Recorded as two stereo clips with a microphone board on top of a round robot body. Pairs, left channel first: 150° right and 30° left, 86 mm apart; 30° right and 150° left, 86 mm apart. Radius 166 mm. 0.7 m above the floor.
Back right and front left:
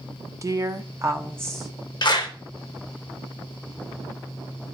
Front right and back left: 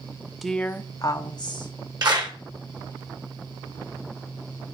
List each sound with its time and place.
0.4 s a woman speaking: 60° left, 0.9 m; by 1.7 s 40° right, 1.4 m
2.0 s a clap: straight behind, 1.4 m